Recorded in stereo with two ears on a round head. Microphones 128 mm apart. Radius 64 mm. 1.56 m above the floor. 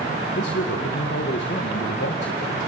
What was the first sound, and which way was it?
A man speaking, 85° left.